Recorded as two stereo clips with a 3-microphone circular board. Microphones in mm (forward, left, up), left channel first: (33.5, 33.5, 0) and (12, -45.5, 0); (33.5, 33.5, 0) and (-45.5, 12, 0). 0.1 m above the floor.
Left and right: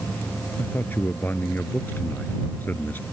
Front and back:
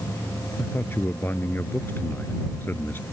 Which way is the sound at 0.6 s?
40° left.